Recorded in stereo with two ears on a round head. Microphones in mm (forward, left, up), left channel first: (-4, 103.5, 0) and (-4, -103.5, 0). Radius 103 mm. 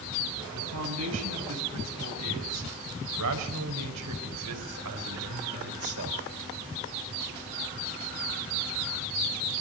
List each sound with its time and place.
0.5 s a man speaking: 75° right (ahead or behind), 6.5 m; by 6.2 s 60° right (ahead or behind), 4 m